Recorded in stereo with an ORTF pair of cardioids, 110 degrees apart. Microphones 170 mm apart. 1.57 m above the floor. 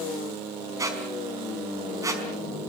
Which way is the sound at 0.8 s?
20° right.